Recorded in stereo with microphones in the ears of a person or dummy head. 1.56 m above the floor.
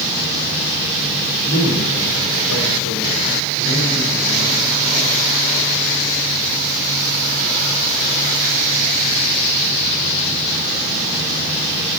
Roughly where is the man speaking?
Left.